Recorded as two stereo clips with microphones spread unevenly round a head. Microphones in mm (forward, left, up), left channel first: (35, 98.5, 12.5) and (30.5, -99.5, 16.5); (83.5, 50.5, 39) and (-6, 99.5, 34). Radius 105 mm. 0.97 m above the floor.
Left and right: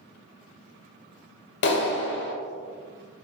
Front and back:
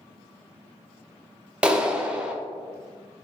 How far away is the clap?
About 0.7 m.